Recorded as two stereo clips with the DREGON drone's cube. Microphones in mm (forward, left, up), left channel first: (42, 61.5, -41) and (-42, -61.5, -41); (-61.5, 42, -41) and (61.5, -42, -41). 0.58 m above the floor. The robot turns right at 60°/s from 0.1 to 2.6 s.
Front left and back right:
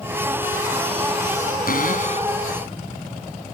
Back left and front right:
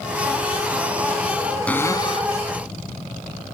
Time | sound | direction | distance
1.7 | a cupboard door | 65° left | ?